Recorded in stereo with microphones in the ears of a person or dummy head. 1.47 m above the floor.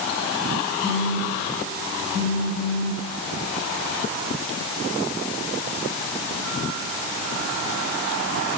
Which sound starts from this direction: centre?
A phone buzzing, at 0.8 s.